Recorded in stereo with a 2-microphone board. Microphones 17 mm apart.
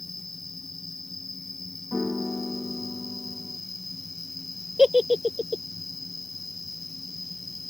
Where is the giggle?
70° right (ahead or behind).